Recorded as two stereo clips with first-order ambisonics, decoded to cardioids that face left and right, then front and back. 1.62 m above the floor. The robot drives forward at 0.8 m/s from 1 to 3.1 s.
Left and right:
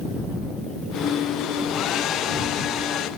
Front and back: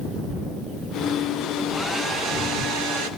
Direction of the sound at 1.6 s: 80° left.